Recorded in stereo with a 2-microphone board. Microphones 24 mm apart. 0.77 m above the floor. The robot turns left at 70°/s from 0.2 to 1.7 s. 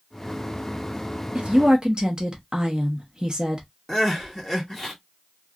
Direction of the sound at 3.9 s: 5° left (ahead or behind).